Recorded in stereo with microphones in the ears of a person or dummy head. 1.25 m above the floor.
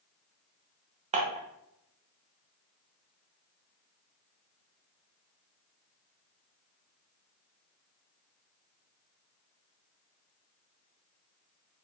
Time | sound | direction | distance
1.1 | dishes clattering | 35° right (ahead or behind) | 0.6 m